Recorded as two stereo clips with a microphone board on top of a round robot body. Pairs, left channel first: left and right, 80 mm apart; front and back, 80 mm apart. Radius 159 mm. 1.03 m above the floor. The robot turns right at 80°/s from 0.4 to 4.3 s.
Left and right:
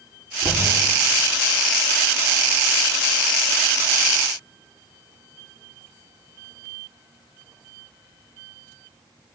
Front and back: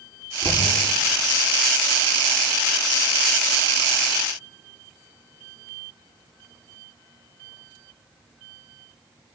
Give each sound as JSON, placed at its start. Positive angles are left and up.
{"t": 0.4, "sound": "knocking", "azimuth_deg": -145, "distance_m": 9.5}